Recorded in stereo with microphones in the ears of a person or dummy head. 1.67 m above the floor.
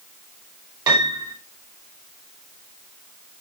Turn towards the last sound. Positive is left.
turn(degrees=-25)  # may be behind; listen again after turning